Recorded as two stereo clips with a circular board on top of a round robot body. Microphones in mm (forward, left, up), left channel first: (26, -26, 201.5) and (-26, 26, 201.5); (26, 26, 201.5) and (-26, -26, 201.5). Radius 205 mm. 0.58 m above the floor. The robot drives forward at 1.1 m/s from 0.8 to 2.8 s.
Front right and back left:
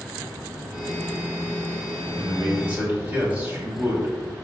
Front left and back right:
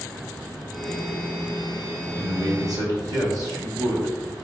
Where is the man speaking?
145° right, 1.7 m; by 4.4 s 155° right, 2 m.